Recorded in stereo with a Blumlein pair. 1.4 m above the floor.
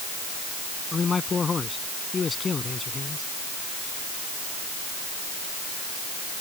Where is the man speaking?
15° left.